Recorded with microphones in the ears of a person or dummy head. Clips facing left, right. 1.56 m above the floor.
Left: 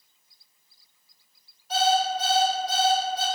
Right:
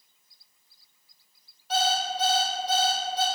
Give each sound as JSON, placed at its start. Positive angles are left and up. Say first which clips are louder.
{"t": 1.7, "sound": "an alarm clock", "louder": "left 4 dB", "side_deg": -55, "distance_m": 1.6}